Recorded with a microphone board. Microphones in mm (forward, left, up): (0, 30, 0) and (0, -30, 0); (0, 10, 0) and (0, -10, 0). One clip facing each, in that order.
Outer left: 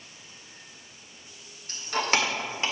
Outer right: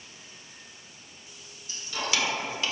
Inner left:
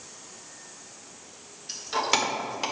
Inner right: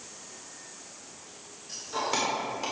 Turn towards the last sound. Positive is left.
turn(degrees=30)  # may be behind; listen again after turning